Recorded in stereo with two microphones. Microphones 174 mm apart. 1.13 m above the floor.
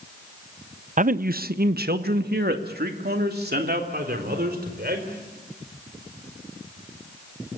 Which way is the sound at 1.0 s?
50° right (ahead or behind).